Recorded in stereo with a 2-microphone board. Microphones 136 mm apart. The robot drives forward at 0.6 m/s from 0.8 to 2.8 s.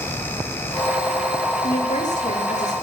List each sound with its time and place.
1.6 s a woman speaking: 75° left (ahead or behind), 1.8 m; by 2.7 s 60° left (ahead or behind), 2 m